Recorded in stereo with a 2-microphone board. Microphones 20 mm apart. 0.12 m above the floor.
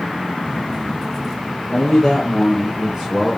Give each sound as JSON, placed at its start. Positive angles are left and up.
{"t": 1.7, "sound": "a man speaking", "side_deg": 10, "distance_m": 1.8}